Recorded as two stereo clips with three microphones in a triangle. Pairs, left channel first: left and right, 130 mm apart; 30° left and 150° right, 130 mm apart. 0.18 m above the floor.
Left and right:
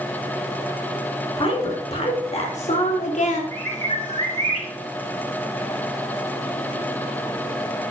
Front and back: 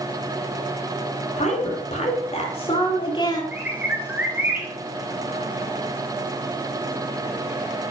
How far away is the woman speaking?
About 4.5 m.